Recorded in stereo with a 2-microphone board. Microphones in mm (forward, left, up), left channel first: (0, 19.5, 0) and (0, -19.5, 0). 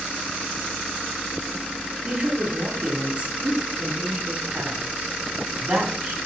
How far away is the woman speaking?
About 1.8 m.